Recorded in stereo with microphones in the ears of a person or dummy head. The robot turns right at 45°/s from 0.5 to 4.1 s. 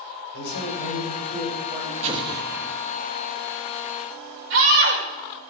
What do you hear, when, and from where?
0.3 s a man speaking: 110° left, 7 m; by 1.9 s 170° left, 7 m
2.0 s an explosion: 35° right, 1.4 m; by 2.8 s straight ahead, 1.4 m
4.5 s a scream: 65° right (ahead or behind), 6 m